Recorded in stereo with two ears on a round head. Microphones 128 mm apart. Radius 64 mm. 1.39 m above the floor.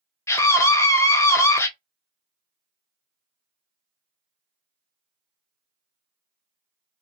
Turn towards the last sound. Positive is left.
turn(degrees=20)  # may be behind; listen again after turning